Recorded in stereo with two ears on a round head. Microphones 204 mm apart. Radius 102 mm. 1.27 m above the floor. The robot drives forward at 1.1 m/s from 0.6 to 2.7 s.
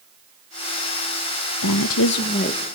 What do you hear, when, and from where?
1.6 s a woman speaking: 70° left (ahead or behind), 0.6 m; by 2.6 s 30° left (ahead or behind), 1.2 m